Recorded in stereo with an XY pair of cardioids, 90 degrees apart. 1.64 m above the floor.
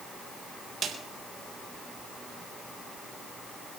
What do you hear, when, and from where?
0.8 s a snare drum: 55° right, 3.5 m